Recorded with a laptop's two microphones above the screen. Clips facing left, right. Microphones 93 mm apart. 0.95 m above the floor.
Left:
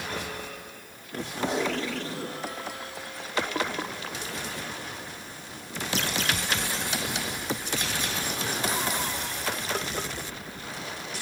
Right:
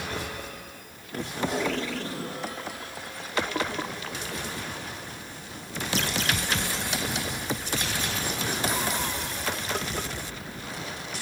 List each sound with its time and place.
1.4 s tape being pulled: 25° left (ahead or behind), 9 m